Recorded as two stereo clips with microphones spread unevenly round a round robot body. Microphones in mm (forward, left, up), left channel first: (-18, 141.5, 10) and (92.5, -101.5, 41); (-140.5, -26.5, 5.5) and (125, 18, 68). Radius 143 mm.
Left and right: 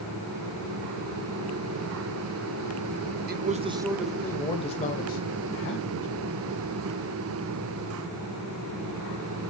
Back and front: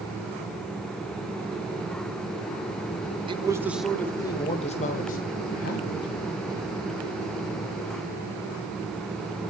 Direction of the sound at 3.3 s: 70° right.